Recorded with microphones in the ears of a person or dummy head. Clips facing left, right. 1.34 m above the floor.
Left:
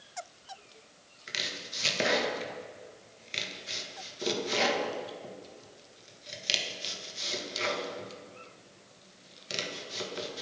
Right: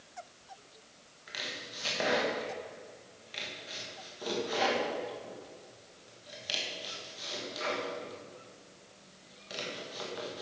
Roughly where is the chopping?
Left.